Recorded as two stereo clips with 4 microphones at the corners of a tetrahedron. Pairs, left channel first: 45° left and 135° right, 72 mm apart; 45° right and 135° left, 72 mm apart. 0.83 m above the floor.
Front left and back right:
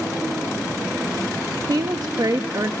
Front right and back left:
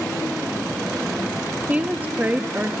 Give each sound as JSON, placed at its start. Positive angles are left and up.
{"t": 1.7, "sound": "a woman speaking", "azimuth_deg": -160, "distance_m": 0.7}